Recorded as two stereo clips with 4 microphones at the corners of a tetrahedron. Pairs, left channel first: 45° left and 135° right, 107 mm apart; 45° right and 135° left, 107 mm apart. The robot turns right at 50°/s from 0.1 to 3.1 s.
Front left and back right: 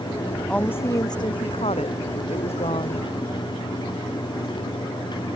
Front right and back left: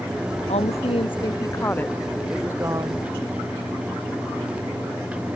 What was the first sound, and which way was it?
A woman speaking, 35° right.